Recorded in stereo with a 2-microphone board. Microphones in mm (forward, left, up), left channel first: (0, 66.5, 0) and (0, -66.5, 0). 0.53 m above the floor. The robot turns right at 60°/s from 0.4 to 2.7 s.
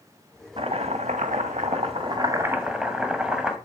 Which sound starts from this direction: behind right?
Chopping, at 0.6 s.